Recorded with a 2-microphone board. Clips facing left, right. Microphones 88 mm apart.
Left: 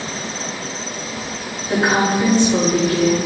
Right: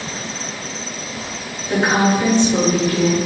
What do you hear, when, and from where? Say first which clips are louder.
1.7 s a woman speaking: right 1 dB; 5° left (ahead or behind), 1.8 m